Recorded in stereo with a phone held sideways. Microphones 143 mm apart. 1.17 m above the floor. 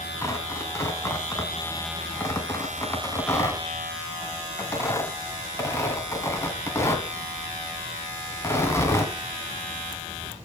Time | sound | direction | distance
0.2 | tearing paper | 20° left (ahead or behind) | 2.5 m